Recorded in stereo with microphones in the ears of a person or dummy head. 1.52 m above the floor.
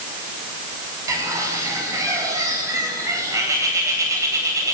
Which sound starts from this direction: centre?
A bird, at 1.1 s.